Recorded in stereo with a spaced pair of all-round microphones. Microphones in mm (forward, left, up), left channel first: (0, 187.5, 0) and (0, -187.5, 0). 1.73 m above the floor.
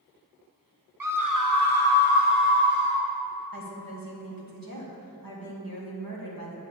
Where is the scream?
60° right (ahead or behind), 1.0 m; by 3.0 s 25° right (ahead or behind), 1.8 m.